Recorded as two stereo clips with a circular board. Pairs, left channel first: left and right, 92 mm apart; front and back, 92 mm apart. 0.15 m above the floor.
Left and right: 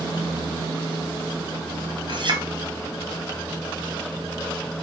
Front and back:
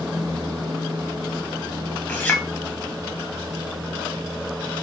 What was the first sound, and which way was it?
A clink, 65° right.